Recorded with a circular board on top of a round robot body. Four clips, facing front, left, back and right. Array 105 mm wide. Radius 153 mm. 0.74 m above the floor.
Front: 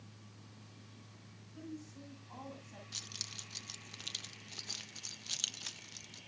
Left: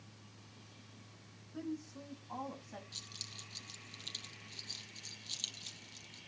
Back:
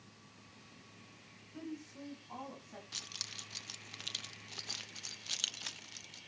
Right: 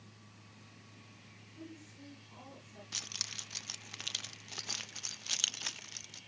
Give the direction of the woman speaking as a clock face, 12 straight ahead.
8 o'clock.